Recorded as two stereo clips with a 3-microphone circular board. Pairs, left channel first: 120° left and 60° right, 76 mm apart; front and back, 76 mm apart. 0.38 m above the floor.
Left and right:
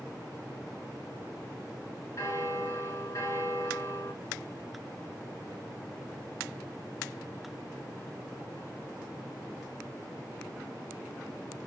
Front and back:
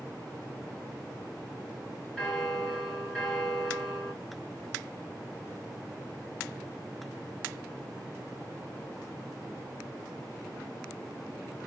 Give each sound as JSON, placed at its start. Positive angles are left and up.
{"t": 2.2, "sound": "a bell", "azimuth_deg": 80, "distance_m": 1.8}